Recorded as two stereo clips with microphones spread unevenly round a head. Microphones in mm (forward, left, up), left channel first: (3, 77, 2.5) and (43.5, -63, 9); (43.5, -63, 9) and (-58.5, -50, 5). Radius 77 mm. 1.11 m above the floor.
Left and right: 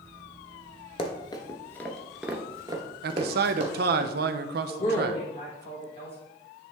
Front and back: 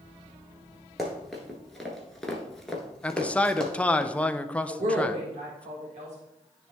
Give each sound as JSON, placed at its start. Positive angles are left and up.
{"t": 1.0, "sound": "running footsteps", "azimuth_deg": 80, "distance_m": 1.2}
{"t": 3.0, "sound": "a man speaking", "azimuth_deg": -85, "distance_m": 0.5}
{"t": 4.7, "sound": "a woman speaking", "azimuth_deg": 160, "distance_m": 1.5}